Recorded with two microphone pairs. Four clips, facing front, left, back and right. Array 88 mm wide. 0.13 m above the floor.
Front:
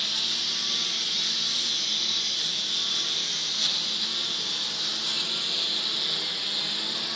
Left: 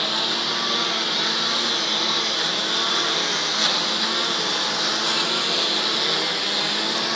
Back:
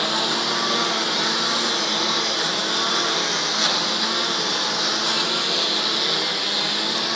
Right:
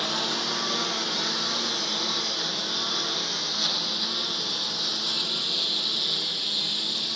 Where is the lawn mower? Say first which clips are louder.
Left 3 dB, back 15 dB; 170° left; by 7.2 s 135° left.